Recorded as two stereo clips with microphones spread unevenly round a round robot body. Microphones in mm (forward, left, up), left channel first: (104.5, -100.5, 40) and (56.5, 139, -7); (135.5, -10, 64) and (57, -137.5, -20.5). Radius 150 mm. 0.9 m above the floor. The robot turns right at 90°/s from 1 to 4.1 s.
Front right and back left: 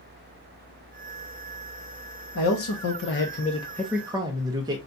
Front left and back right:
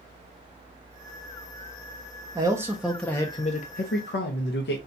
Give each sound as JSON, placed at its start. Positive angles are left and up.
{"t": 2.4, "sound": "a man speaking", "azimuth_deg": -115, "distance_m": 0.7}